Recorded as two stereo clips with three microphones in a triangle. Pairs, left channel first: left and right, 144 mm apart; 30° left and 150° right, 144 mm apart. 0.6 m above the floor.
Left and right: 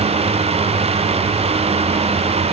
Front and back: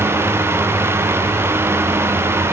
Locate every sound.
Only background noise.